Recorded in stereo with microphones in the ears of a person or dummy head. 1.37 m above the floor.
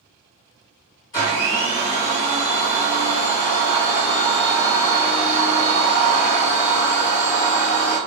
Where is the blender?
15° left (ahead or behind), 1.2 m.